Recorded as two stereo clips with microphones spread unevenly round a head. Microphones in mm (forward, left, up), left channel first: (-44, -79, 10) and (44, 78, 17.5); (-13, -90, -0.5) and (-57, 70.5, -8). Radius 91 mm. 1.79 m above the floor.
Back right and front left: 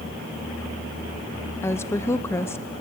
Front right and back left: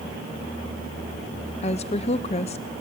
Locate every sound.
1.6 s a woman speaking: 45° right, 0.7 m